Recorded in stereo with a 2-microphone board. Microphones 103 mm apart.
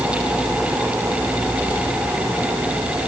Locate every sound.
Only background noise.